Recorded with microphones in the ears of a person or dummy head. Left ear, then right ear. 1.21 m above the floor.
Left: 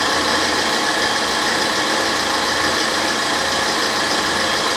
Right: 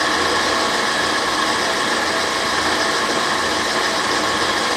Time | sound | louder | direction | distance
0.0 | an engine running | even | 55° left (ahead or behind) | 1.4 m